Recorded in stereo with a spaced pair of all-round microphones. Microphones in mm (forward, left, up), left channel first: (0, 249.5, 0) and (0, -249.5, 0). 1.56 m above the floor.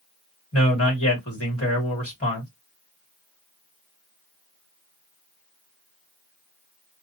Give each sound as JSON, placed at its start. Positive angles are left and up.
{"t": 0.5, "sound": "a man speaking", "side_deg": 30, "distance_m": 1.7}